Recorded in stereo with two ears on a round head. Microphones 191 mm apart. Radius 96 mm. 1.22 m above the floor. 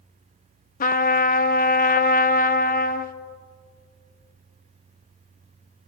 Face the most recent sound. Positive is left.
turn(degrees=40)  # may be behind; listen again after turning